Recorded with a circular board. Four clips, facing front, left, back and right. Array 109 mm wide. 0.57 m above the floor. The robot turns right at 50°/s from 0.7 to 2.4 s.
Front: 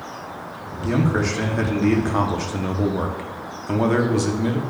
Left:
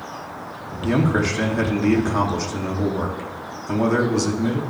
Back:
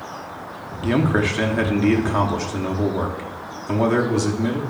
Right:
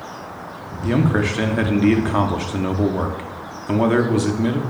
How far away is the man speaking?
About 0.6 m.